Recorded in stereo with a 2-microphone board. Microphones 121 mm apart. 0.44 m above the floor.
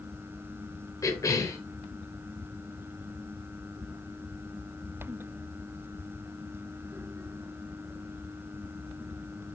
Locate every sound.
1.0 s a cough: 30° left (ahead or behind), 1.3 m